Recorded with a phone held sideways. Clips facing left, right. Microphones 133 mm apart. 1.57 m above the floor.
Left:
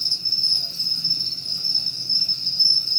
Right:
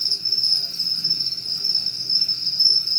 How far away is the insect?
About 1.5 m.